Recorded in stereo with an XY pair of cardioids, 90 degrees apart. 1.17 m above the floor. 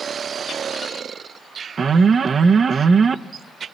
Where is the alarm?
45° right, 0.7 m.